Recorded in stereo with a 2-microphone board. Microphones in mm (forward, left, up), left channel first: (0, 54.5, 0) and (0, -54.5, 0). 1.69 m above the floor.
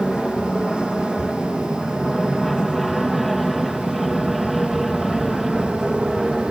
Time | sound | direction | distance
0.0 | an aircraft | centre (ahead or behind) | ?